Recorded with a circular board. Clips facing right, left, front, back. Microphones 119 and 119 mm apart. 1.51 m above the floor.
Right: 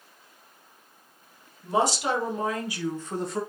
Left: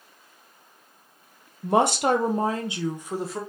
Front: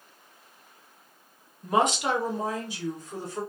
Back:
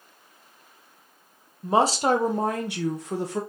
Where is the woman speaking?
115° left, 0.8 m; by 3.4 s straight behind, 0.9 m.